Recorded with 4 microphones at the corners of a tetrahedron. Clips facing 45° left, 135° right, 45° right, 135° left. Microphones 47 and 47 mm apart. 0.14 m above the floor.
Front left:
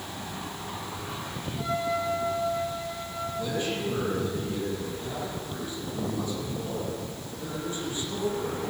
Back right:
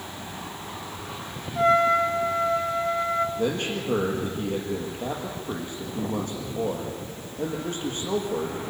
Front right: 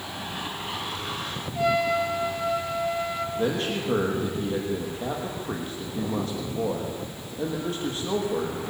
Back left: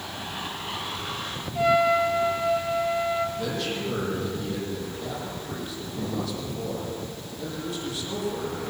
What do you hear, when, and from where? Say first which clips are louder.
1.6 s a trumpet: back right 10 dB, back left 3 dB; 150° right, 1.5 m
3.4 s a man speaking: back right 3 dB, front right 3 dB; 100° right, 5.5 m